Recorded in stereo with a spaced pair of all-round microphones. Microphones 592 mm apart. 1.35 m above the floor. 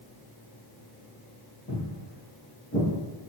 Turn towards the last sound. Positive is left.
turn(degrees=15)  # may be behind; listen again after turning